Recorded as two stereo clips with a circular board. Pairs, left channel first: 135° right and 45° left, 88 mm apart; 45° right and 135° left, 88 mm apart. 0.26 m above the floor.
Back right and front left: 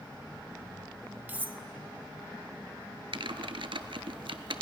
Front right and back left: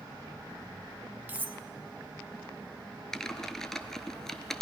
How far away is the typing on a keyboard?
About 0.6 m.